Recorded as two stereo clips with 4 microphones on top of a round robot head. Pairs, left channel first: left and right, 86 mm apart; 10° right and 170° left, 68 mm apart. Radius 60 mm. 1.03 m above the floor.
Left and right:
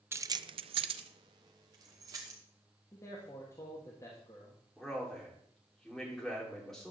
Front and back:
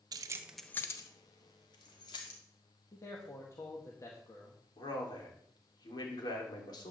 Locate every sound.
0.1 s keys jangling: 150° right, 0.7 m; by 2.4 s 30° right, 2.5 m
2.9 s a man speaking: 30° left, 1.8 m
4.8 s a man speaking: 5° left, 3 m